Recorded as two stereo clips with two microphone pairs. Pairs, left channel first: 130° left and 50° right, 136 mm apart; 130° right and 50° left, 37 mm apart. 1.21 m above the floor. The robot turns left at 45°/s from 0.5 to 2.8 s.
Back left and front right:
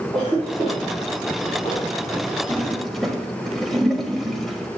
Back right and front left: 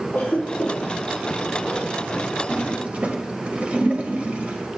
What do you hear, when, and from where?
0.1 s a cough: 145° right, 3.5 m; by 1.9 s 155° left, 3.5 m
2.5 s a toilet flushing: 50° left, 1.2 m; by 4.7 s 35° left, 1.2 m